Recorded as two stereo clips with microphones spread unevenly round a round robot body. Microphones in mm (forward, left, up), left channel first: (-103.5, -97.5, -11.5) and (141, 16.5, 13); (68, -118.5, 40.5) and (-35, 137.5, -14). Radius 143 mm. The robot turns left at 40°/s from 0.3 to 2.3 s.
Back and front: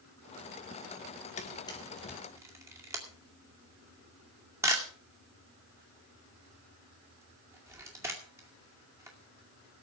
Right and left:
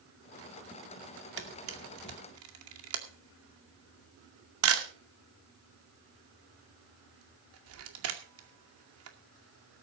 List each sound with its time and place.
1.4 s a camera shutter: 145° left, 2 m; by 9.8 s 110° left, 2 m